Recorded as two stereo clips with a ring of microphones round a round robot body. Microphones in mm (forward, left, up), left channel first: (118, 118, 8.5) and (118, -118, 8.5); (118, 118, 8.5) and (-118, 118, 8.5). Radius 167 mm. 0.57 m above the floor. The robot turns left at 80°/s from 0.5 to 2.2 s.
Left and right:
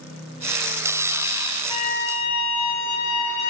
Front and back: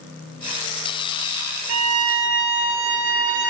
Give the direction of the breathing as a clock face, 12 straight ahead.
I don't hear breathing.